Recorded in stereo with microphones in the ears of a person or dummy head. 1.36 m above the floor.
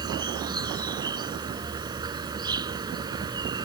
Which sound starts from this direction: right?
An insect, at 0.0 s.